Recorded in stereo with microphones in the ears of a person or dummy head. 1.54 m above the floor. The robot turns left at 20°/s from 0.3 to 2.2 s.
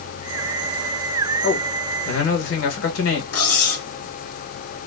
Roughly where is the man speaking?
Left.